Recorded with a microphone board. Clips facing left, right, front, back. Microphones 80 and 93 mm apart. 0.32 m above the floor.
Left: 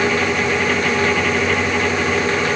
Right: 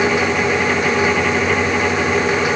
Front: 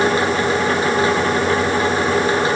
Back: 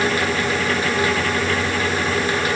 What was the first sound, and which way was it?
Only background noise.